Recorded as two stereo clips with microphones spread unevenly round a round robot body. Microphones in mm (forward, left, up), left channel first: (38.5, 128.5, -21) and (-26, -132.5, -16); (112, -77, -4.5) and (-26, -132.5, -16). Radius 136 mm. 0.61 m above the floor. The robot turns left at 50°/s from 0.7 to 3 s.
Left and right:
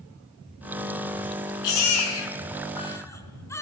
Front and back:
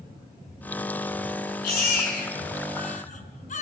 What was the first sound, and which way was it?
A baby crying, 65° left.